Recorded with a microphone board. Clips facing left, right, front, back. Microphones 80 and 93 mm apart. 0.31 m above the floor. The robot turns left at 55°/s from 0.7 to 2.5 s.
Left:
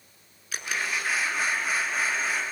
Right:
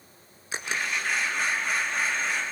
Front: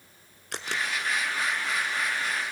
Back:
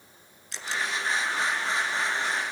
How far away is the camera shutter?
About 1.3 m.